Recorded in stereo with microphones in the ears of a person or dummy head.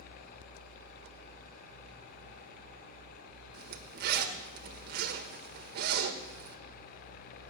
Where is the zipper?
60° right (ahead or behind), 1.4 m.